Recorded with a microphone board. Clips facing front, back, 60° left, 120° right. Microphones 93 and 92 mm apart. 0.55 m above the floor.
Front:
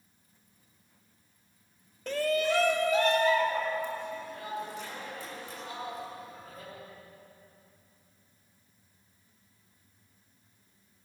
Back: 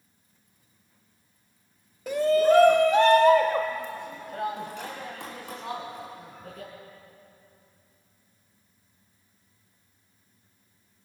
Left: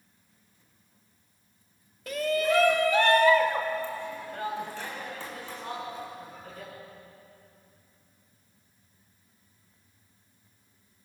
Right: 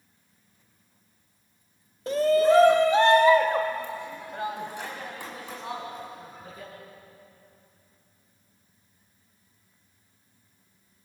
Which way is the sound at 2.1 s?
105° right.